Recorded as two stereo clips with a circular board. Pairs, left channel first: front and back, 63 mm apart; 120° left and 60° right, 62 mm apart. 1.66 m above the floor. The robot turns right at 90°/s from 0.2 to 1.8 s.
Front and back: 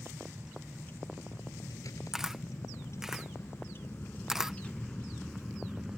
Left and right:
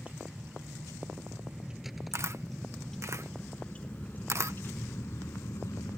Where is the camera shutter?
100° right.